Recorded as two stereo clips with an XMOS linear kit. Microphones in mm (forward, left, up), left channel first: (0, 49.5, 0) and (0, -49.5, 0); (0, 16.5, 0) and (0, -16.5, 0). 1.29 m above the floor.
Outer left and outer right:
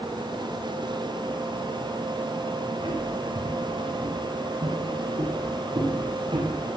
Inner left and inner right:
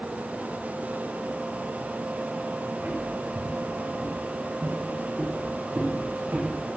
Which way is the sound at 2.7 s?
70° right (ahead or behind).